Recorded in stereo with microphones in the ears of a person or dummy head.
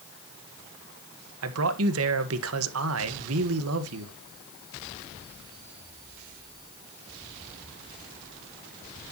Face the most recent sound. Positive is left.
turn(degrees=-80)